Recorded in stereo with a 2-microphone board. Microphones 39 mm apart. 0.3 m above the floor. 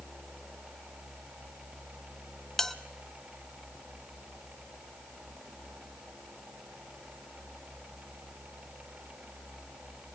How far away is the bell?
About 0.9 m.